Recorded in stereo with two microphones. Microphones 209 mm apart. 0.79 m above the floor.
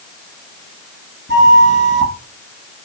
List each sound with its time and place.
1.3 s a flute: 65° right (ahead or behind), 2.0 m